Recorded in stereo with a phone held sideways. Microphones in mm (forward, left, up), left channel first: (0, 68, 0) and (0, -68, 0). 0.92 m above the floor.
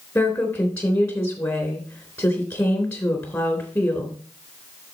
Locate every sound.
0.1 s a woman speaking: 20° left (ahead or behind), 3.5 m